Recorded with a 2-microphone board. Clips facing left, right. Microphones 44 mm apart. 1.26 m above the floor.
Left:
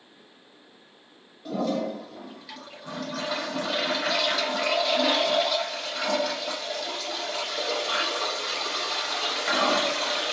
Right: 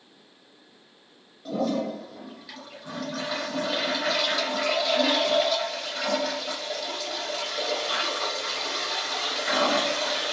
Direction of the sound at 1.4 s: Centre (ahead or behind).